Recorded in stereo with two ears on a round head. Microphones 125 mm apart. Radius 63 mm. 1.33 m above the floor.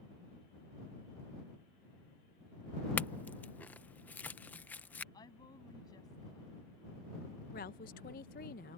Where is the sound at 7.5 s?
65° left (ahead or behind).